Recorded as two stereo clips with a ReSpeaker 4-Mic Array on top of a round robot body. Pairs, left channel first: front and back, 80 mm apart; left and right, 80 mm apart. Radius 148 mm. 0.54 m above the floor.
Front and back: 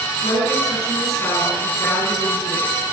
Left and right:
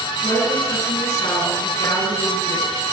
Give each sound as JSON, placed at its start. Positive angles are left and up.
{"t": 0.2, "sound": "a woman speaking", "azimuth_deg": 55, "distance_m": 8.5}